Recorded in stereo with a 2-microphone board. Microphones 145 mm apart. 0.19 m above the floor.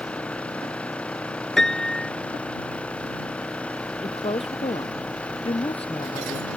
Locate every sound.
0.0 s an engine running: 10° left (ahead or behind)
1.6 s a piano: 5° left (ahead or behind)
4.0 s a woman speaking: 40° left (ahead or behind)